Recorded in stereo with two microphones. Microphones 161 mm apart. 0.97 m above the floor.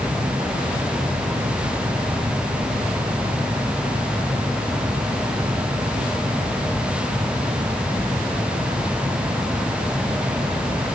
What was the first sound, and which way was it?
Only background noise.